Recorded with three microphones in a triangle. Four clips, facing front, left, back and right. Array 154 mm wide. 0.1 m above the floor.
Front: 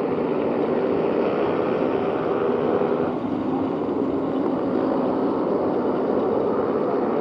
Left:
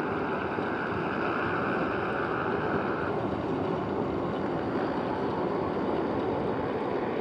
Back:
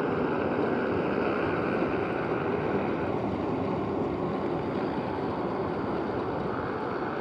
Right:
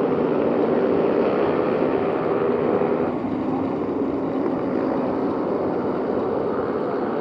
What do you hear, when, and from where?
0.0 s a motorcycle: 65° right; by 7.2 s 20° right